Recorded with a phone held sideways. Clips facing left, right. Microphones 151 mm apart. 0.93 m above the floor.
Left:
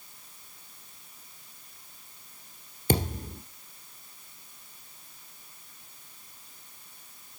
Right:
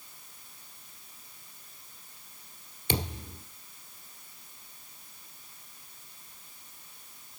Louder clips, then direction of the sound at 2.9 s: Left 6 dB; 45° left (ahead or behind).